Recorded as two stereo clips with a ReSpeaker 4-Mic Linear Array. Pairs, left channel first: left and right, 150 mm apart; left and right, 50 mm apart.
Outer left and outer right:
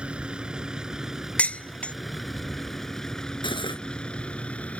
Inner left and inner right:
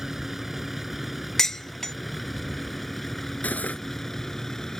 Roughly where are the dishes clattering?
Centre.